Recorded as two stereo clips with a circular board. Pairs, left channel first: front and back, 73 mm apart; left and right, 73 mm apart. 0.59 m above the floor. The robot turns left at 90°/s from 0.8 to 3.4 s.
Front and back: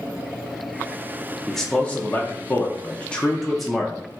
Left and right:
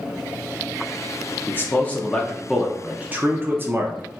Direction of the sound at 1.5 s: 90° left.